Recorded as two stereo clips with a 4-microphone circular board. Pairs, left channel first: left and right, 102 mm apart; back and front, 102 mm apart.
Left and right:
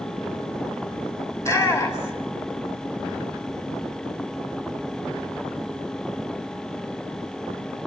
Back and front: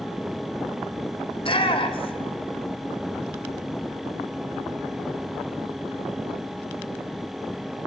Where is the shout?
150° left, 3 m.